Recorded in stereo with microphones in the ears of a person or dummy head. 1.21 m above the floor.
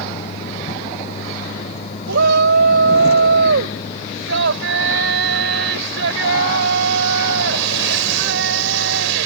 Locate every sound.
0.0 s a vehicle: 40° left (ahead or behind); by 9.3 s 35° left (ahead or behind)
2.1 s a shout: 70° right (ahead or behind)